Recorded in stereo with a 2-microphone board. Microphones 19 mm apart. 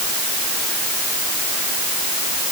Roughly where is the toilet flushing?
I don't hear a toilet flushing.